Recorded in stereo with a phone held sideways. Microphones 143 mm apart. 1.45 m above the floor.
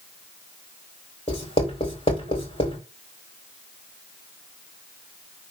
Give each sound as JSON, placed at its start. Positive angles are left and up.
{"t": 1.3, "sound": "writing", "side_deg": 40, "distance_m": 4.0}